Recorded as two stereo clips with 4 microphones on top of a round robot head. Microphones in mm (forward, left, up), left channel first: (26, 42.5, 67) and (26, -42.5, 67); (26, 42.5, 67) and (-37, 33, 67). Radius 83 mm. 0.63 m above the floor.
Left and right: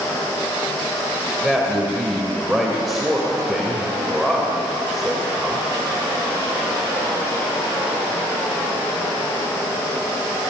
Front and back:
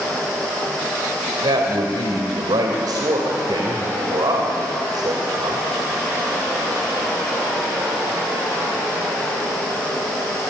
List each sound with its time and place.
1.4 s a man speaking: straight behind, 3 m